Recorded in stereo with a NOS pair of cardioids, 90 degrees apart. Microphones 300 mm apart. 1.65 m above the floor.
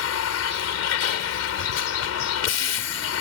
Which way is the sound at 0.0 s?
65° left.